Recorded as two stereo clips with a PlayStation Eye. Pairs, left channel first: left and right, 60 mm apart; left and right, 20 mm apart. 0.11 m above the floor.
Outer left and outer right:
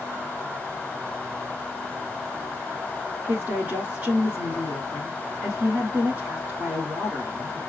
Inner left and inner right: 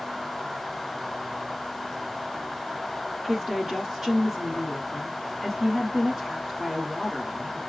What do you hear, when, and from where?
3.3 s a woman speaking: 25° right (ahead or behind), 1.2 m